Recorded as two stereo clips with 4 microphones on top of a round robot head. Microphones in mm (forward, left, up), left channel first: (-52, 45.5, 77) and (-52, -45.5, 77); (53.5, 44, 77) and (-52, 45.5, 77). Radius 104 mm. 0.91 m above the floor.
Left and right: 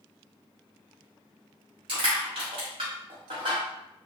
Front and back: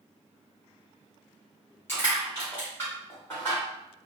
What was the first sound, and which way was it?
Crushing, 75° right.